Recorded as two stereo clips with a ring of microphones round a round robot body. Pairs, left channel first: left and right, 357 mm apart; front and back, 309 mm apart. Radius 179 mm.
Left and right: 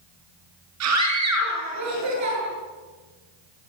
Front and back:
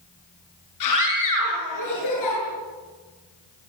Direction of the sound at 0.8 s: 40° right.